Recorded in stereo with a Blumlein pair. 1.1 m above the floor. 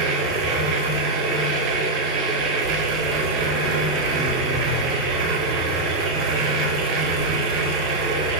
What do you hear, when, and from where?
0.0 s a machine running: 35° right, 1.0 m